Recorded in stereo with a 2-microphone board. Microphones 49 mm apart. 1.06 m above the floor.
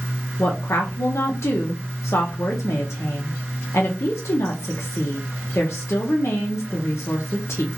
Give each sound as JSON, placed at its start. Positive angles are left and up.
{"t": 0.4, "sound": "a woman speaking", "side_deg": 70, "distance_m": 0.7}